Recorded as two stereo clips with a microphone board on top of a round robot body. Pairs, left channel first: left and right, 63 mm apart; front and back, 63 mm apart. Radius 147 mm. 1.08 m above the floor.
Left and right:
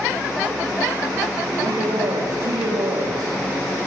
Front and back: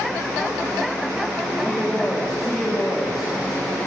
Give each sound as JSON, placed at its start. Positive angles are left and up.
{"t": 1.6, "sound": "a man speaking", "azimuth_deg": -90, "distance_m": 3.5}